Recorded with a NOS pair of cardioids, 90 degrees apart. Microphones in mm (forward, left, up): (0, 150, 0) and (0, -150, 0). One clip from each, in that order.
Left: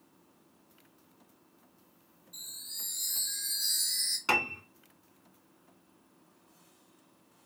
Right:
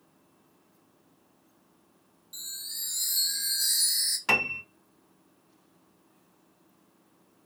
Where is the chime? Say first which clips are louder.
Right 5 dB; 40° right, 0.7 m.